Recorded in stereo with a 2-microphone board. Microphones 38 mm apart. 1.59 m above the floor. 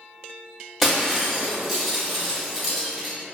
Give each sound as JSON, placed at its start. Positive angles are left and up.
{"t": 0.8, "sound": "breaking glass", "side_deg": 0, "distance_m": 0.8}